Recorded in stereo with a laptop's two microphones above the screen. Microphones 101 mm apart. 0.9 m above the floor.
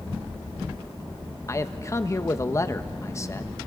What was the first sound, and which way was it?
A man speaking, 30° left (ahead or behind).